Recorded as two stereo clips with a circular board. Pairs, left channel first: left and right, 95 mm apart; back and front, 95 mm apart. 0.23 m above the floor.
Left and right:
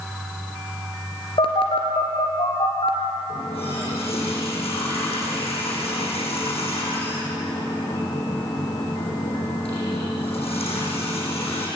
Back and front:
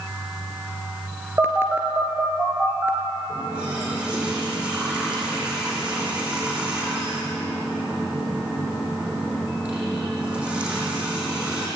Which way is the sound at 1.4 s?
65° left.